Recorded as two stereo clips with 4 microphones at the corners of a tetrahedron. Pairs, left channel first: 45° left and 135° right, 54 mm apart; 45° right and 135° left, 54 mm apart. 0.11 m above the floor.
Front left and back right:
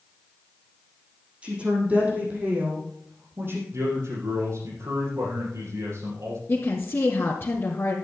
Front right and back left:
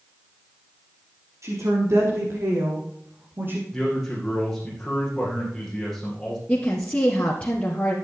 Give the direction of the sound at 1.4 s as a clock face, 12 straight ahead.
7 o'clock.